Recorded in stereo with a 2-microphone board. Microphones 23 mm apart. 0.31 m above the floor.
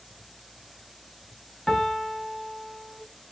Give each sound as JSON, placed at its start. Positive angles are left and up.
{"t": 1.7, "sound": "a piano", "side_deg": 25, "distance_m": 0.6}